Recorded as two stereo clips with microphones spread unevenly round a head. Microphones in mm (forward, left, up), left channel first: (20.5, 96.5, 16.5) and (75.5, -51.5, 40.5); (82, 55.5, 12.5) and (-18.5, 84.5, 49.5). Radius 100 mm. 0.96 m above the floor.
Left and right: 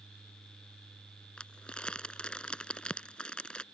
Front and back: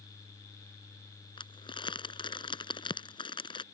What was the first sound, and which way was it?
Crumpling, 25° left.